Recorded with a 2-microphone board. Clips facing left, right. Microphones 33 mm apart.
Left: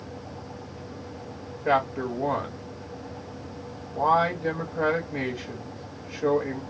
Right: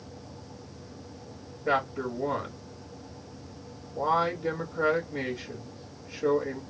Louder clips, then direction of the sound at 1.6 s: Left 4 dB; 40° left (ahead or behind).